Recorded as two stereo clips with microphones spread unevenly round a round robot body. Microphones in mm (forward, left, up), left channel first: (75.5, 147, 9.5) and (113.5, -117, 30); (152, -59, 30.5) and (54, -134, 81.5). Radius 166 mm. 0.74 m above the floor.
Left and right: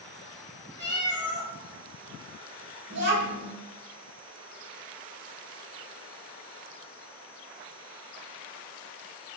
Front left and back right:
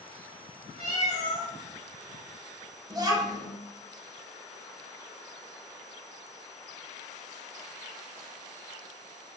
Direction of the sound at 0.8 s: 120° right.